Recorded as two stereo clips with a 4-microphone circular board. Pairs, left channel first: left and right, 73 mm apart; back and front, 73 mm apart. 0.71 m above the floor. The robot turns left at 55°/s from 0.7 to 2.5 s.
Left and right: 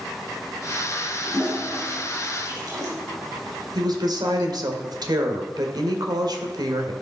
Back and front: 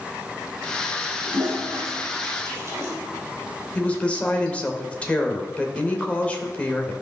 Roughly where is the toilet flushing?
Ahead.